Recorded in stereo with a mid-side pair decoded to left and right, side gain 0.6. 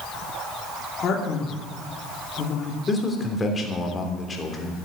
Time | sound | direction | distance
1.0 | a man speaking | 45° left | 2.5 m
2.9 | a man speaking | 25° left | 3 m